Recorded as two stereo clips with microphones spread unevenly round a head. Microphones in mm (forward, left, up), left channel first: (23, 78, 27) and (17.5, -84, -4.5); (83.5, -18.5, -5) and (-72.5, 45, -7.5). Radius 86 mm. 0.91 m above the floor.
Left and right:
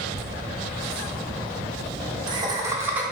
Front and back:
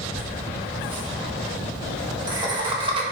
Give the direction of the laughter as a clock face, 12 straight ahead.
4 o'clock.